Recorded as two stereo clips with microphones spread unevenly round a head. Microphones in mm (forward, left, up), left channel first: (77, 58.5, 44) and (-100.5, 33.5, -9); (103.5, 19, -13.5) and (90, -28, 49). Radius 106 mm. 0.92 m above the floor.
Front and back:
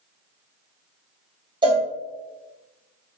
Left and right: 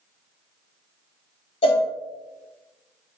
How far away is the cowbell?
About 0.8 m.